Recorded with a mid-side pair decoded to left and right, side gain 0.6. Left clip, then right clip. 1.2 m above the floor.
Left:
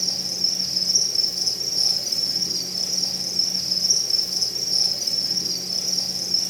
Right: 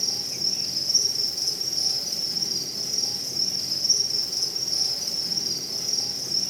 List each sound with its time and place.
0.0 s an insect: 40° left, 2.5 m